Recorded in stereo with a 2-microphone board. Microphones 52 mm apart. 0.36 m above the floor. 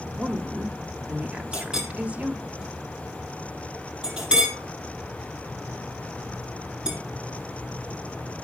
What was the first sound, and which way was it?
A woman speaking, 25° right (ahead or behind).